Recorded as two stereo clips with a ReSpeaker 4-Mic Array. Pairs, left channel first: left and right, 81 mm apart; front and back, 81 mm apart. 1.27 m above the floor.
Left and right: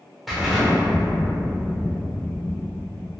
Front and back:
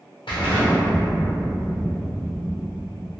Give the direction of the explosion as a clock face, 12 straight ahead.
12 o'clock.